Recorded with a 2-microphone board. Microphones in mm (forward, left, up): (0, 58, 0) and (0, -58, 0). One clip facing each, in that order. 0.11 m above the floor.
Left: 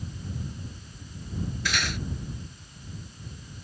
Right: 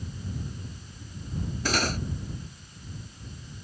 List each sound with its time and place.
1.6 s cutlery clinking: 40° right (ahead or behind)